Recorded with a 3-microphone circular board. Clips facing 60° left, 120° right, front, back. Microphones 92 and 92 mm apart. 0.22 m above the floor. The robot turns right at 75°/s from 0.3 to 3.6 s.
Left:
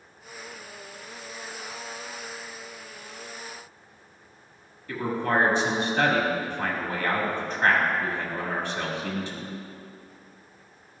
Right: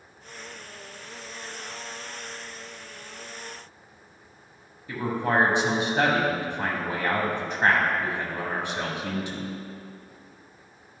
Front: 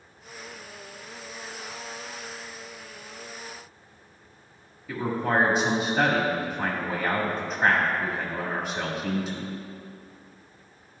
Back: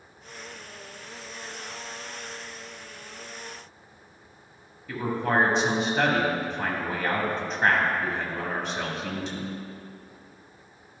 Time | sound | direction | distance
4.9 | a man speaking | 80° right | 1.5 m